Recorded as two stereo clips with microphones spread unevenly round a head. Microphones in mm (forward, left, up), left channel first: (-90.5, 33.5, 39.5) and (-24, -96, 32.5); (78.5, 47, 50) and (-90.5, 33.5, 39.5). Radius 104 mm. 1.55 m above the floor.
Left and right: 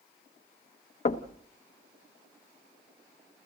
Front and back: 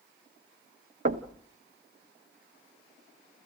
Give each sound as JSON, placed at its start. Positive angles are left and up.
{"t": 1.1, "sound": "knocking", "azimuth_deg": 145, "distance_m": 1.0}